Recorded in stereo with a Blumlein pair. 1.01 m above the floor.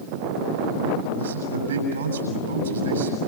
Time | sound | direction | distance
1.1 | a man speaking | 65° right | 8 m